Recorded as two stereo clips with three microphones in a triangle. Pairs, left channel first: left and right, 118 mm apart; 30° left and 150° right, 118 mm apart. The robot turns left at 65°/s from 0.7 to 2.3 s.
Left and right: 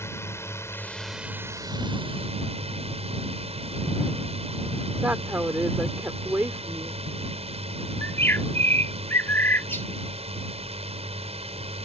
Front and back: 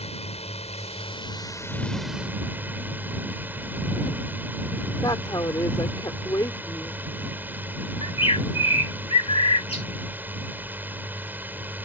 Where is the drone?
25° left; by 11.8 s 80° right.